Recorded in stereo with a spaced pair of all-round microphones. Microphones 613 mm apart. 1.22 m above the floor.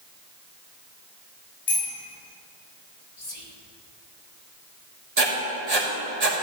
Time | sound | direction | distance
1.7 | a bicycle bell | 75° left (ahead or behind) | 6 m
3.2 | whispering | 75° left (ahead or behind) | 2.5 m
5.2 | writing | 85° right | 2.5 m